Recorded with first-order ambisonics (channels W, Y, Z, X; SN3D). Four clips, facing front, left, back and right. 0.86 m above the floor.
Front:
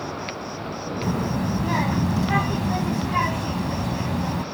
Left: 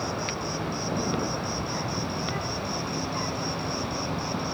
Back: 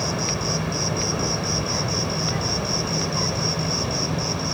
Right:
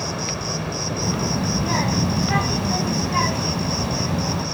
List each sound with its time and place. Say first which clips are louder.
0.0 s an insect: right 4 dB, back 6 dB; 150° right
1.0 s a child speaking: right 5 dB, back 1 dB; 45° right